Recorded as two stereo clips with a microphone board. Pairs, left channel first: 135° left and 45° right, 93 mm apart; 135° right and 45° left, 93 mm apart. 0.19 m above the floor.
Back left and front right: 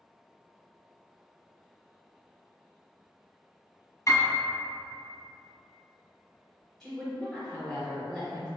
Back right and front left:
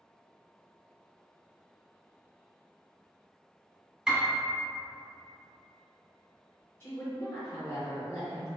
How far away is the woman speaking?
About 1.3 m.